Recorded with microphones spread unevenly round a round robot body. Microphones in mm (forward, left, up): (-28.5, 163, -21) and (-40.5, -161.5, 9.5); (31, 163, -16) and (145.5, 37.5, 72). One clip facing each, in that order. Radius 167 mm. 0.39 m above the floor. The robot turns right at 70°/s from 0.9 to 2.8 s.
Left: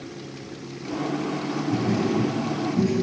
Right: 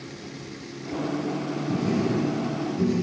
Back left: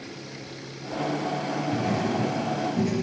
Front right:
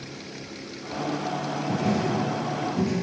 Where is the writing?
30° right, 2.5 m; by 2.9 s 50° left, 2.5 m.